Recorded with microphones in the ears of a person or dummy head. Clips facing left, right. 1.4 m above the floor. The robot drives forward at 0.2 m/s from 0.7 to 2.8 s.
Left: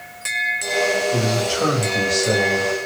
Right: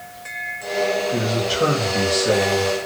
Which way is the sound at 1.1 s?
15° right (ahead or behind).